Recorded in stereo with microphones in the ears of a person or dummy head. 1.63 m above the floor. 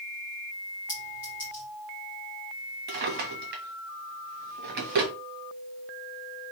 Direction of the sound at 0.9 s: 10° left (ahead or behind).